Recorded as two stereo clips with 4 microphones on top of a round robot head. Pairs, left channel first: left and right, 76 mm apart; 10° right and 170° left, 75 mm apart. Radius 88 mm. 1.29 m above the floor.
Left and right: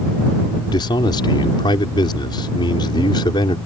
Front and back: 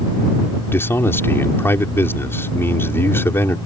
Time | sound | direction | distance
0.7 | a man speaking | 50° left | ?